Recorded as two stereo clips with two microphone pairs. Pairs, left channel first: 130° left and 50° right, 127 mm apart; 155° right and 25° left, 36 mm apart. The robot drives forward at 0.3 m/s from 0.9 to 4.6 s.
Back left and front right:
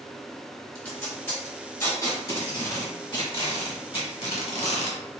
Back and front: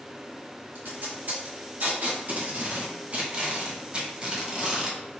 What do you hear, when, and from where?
0.8 s tape being pulled: 55° left, 1.5 m; by 5.0 s 100° left, 1.2 m